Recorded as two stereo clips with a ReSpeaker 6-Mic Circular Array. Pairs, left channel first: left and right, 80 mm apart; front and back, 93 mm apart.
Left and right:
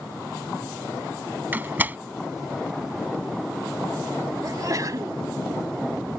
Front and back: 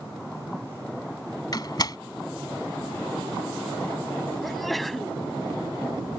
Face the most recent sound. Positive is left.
turn(degrees=-90)